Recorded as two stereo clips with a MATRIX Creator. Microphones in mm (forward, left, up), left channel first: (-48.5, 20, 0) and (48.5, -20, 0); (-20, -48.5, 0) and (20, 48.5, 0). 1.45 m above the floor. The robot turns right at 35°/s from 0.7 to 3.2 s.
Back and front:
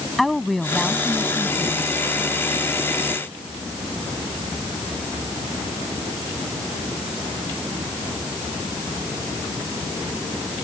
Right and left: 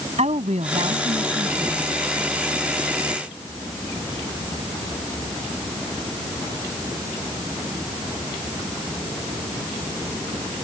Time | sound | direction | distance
0.2 | a woman speaking | 70° left | ?